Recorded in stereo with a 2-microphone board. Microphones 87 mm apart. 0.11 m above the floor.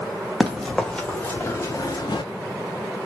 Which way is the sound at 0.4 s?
Centre (ahead or behind).